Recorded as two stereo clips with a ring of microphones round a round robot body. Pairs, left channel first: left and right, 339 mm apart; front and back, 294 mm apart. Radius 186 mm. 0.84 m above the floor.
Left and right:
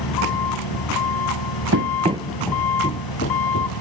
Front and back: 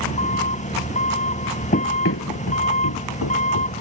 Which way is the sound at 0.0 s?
65° left.